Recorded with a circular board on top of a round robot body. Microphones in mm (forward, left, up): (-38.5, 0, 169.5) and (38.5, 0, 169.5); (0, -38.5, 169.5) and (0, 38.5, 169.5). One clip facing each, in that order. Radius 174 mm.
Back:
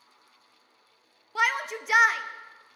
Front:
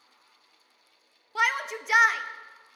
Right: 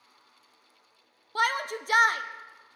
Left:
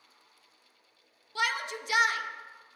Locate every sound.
1.4 s a shout: 90° right, 0.6 m